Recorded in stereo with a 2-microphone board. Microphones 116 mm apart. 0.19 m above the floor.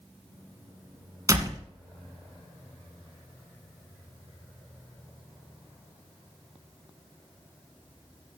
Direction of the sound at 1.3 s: 30° right (ahead or behind).